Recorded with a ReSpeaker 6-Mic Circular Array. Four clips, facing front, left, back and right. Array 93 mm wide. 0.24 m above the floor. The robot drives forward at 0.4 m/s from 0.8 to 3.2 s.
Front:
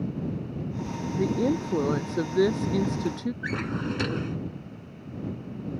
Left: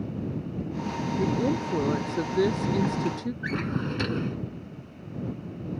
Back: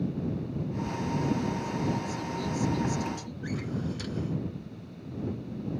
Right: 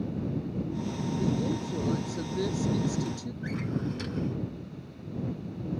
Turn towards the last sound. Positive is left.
turn(degrees=40)